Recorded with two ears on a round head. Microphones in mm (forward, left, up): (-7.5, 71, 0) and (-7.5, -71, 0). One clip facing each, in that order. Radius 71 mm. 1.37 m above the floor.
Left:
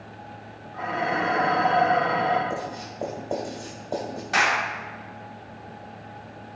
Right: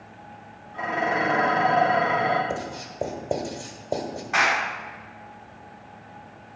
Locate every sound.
0.7 s dishes clattering: 20° right (ahead or behind), 3 m
2.5 s writing: 30° right (ahead or behind), 1.7 m
4.3 s a clap: 40° left (ahead or behind), 3 m